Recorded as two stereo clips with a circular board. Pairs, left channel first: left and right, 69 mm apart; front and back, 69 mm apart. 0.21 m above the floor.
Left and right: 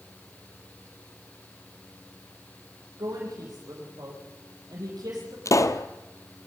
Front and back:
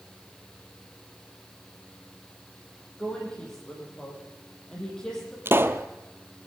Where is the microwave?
I don't hear a microwave.